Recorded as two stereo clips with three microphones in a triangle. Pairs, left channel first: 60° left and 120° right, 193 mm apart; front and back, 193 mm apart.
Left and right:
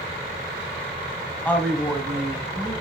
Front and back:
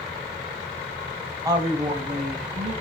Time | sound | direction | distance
1.4 | a woman speaking | 130° left | 1.0 m